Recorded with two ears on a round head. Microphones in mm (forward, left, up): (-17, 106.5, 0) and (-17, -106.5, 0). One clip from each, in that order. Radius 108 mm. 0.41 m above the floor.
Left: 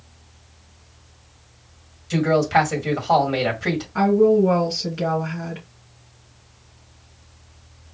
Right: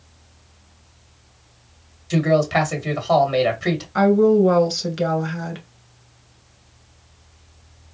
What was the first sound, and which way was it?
A man speaking, 15° right (ahead or behind).